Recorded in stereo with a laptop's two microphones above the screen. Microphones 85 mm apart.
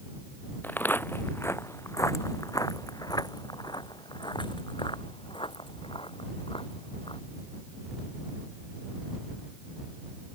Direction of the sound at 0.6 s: 20° left (ahead or behind).